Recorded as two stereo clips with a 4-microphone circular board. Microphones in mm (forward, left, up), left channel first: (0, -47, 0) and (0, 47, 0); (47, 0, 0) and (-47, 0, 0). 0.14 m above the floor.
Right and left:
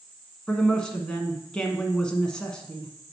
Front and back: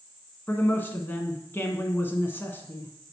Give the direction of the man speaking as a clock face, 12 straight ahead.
1 o'clock.